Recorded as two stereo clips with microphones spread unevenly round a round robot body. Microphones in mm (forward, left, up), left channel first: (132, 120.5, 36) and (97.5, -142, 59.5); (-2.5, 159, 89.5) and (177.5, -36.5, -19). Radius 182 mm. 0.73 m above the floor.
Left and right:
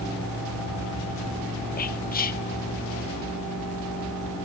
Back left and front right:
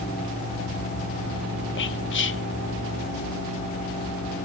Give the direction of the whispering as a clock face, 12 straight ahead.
9 o'clock.